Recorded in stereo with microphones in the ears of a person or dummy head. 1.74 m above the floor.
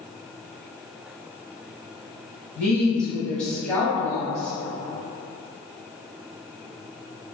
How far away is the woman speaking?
About 1.0 m.